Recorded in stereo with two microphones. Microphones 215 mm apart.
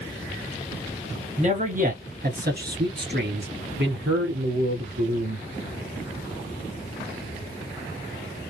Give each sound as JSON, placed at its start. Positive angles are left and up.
{"t": 1.4, "sound": "a man speaking", "side_deg": -35, "distance_m": 1.8}